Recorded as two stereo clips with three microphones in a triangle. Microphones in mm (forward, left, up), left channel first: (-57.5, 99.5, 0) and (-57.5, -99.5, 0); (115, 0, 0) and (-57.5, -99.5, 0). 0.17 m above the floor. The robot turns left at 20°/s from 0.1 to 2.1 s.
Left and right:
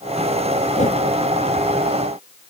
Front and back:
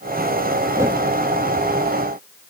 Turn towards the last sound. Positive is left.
turn(degrees=110)